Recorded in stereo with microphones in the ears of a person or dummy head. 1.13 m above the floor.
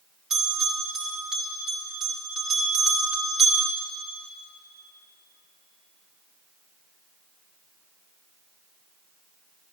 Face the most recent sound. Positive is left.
turn(degrees=0)  # may be behind; listen again after turning